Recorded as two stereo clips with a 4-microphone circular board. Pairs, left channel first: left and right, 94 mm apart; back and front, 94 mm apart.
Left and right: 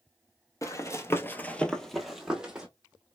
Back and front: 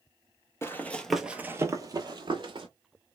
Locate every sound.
0.6 s running footsteps: 125° left, 0.6 m; by 2.7 s 10° right, 0.9 m